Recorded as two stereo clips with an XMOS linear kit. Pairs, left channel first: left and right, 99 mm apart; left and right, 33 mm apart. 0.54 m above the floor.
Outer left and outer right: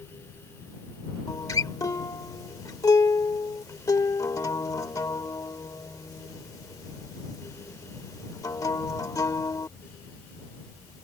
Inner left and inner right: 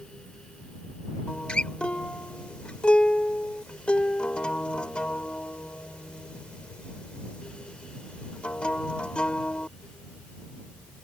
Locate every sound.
1.3 s a guitar: 35° left (ahead or behind)